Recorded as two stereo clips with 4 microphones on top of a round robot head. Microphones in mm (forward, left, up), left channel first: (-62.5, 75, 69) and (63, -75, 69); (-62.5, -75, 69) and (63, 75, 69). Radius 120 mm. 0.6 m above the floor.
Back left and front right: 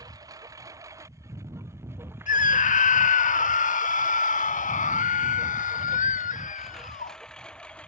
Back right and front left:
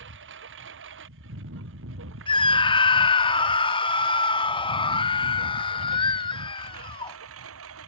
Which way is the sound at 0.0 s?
25° left.